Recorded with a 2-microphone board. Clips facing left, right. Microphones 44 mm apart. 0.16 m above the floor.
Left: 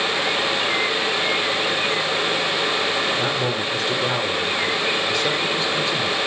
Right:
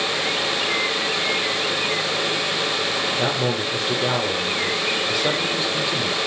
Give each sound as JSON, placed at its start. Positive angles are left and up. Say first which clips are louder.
{"t": 3.1, "sound": "a man speaking", "louder": "even", "side_deg": -10, "distance_m": 4.5}